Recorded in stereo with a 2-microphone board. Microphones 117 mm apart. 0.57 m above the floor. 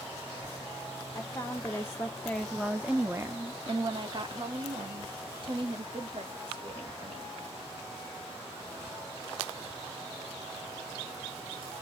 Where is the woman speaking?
30° left (ahead or behind), 1.2 m; by 7.4 s 50° right (ahead or behind), 2.5 m.